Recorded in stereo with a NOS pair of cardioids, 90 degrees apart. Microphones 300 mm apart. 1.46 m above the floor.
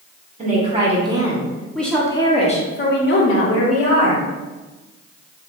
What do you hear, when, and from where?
0.4 s a woman speaking: 25° right, 1.6 m; by 4.2 s 65° left, 1.4 m